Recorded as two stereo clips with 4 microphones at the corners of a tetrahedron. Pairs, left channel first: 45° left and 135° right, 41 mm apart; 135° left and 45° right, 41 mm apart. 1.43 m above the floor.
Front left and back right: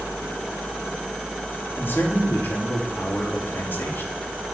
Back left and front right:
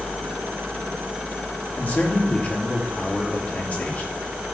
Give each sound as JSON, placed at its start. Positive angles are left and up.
{"t": 1.8, "sound": "a man speaking", "azimuth_deg": 80, "distance_m": 3.0}